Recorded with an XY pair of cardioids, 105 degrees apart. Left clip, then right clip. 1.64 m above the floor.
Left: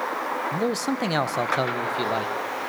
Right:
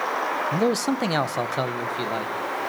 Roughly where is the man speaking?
Ahead right.